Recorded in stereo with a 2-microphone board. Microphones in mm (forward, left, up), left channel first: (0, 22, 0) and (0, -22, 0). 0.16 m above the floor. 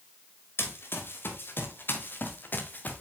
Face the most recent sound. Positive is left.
turn(degrees=40)  # may be behind; listen again after turning